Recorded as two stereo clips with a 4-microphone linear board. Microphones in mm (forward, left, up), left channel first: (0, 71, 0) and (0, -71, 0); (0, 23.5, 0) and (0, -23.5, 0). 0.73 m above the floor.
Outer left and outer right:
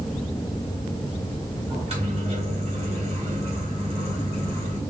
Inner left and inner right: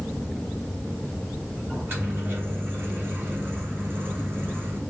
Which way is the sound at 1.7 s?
45° right (ahead or behind).